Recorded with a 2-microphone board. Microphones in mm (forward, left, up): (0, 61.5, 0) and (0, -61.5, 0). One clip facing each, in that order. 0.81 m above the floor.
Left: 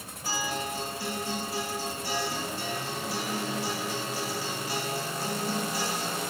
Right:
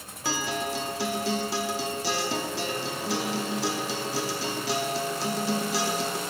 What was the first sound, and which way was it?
A guitar, 85° right.